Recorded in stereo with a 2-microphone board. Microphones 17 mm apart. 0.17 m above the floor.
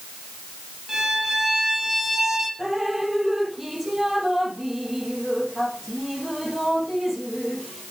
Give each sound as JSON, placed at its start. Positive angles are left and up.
{"t": 0.9, "sound": "a violin", "side_deg": -25, "distance_m": 3.5}
{"t": 2.6, "sound": "dripping", "side_deg": -15, "distance_m": 5.5}